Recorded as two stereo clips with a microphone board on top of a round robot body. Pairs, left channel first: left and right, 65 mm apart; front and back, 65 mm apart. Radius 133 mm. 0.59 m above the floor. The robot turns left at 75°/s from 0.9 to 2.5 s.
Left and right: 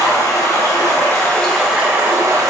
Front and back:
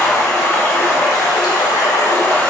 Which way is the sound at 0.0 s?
50° left.